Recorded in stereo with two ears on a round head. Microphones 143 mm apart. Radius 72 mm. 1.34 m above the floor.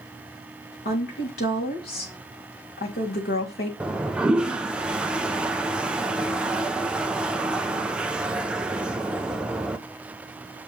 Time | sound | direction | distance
0.8 | a woman speaking | 70° left (ahead or behind) | 2.5 m
3.8 | a toilet flushing | 5° right (ahead or behind) | 0.6 m